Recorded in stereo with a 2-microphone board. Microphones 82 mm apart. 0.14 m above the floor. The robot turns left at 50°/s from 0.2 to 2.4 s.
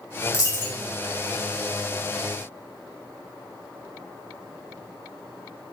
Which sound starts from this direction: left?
A dropped coin, at 0.3 s.